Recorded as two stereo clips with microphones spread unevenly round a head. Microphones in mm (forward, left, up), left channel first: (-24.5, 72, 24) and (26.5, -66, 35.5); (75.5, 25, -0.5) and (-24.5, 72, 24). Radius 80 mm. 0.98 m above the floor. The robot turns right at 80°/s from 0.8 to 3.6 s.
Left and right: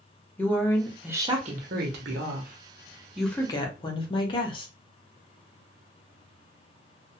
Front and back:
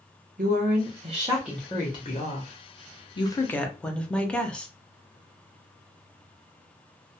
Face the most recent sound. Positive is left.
turn(degrees=55)